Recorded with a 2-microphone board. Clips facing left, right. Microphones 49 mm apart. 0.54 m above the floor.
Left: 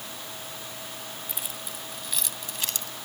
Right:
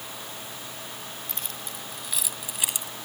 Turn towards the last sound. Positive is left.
turn(degrees=-20)  # may be behind; listen again after turning